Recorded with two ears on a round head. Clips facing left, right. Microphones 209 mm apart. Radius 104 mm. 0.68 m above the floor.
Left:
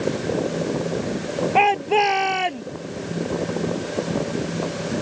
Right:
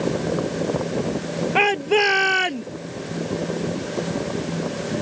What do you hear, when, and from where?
1.6 s a shout: 20° right (ahead or behind)